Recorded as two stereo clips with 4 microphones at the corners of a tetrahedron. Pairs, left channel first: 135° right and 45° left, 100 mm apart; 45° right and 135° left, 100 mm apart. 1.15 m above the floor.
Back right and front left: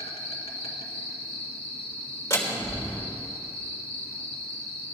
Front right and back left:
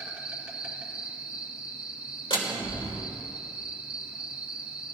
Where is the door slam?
75° right, 2.5 m.